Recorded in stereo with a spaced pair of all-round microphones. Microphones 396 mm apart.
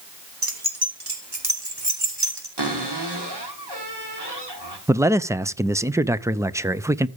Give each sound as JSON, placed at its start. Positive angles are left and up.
{"t": 0.4, "sound": "keys jangling", "side_deg": -60, "distance_m": 1.9}
{"t": 2.6, "sound": "a cupboard door", "side_deg": -85, "distance_m": 3.5}
{"t": 4.9, "sound": "a man speaking", "side_deg": -5, "distance_m": 0.5}